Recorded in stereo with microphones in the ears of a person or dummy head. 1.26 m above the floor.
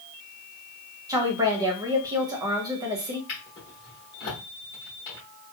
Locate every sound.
1.1 s a woman speaking: 20° right (ahead or behind), 0.7 m
3.3 s a drawer: 30° left (ahead or behind), 1.0 m